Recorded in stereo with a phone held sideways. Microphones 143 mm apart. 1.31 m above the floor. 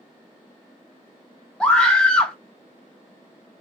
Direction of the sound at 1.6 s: 5° left (ahead or behind).